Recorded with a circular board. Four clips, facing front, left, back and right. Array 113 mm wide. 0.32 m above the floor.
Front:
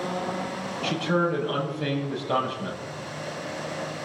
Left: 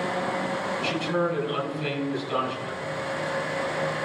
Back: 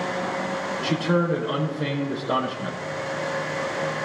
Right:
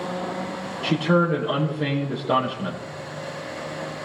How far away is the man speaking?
About 6 m.